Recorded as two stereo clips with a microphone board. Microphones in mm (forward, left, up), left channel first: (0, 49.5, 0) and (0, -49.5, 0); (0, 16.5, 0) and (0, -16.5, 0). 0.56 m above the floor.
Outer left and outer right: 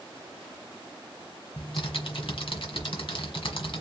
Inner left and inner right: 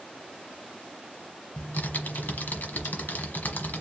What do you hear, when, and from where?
1.6 s typing on a keyboard: 65° left (ahead or behind), 1.3 m